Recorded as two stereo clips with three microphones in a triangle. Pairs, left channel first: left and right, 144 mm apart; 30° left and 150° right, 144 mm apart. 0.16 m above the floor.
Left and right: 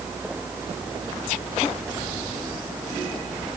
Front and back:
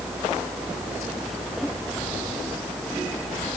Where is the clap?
No clap in this recording.